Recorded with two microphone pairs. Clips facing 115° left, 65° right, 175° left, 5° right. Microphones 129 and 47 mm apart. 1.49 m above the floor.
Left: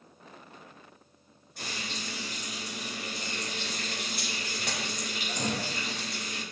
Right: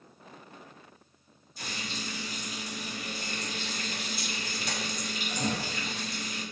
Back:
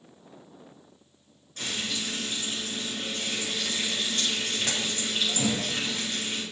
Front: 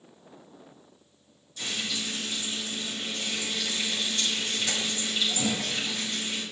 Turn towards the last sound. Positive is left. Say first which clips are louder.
# even, even
turn(degrees=140)